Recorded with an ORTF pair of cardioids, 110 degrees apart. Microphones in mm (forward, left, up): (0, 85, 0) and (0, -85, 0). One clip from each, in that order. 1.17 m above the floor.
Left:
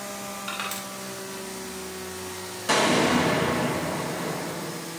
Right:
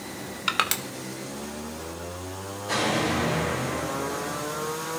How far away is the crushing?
About 1.3 m.